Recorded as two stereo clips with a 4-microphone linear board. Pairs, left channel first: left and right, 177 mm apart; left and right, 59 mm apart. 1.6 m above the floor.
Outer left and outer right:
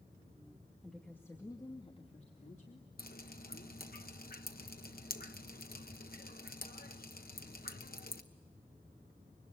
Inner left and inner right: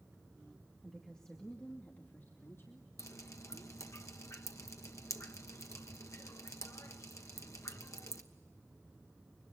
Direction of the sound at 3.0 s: 55° left (ahead or behind).